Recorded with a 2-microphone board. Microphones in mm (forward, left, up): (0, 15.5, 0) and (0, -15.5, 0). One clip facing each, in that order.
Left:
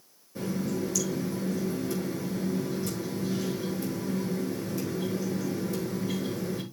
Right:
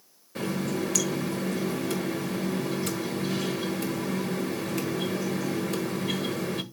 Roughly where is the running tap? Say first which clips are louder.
Right 2 dB; right.